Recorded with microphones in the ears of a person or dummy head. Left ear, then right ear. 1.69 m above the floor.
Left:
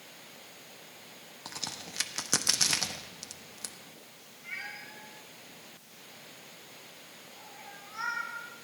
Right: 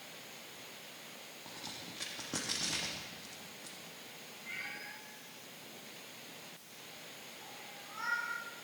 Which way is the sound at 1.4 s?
70° left (ahead or behind).